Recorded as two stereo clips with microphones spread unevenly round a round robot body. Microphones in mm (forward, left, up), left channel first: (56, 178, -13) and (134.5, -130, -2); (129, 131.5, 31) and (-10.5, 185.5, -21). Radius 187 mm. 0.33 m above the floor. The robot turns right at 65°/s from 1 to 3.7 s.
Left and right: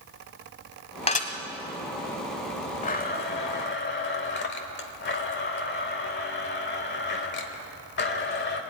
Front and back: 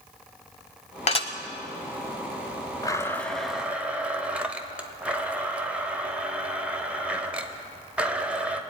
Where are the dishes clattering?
35° left, 1.2 m; by 1.3 s 50° left, 1.2 m.